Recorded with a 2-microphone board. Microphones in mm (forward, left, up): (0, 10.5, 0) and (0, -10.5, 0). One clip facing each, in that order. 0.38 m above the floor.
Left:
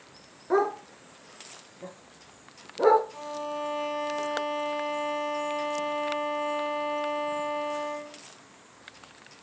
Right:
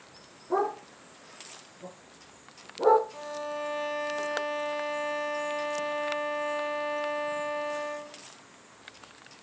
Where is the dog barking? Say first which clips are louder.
Left 3 dB; 65° left (ahead or behind), 3 m.